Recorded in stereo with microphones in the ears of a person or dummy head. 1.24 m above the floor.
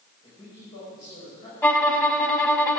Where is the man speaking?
35° left (ahead or behind), 5 m.